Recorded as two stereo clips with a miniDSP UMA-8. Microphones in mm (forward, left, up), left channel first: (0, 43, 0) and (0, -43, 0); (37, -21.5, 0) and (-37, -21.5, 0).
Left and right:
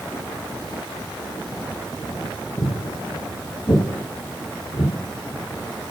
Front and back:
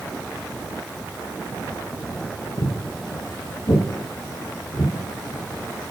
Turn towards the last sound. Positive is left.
turn(degrees=45)